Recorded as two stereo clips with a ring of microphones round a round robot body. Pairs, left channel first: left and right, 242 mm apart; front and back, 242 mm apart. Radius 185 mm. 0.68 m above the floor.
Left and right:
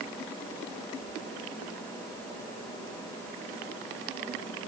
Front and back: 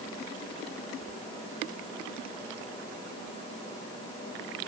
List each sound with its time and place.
Only background noise.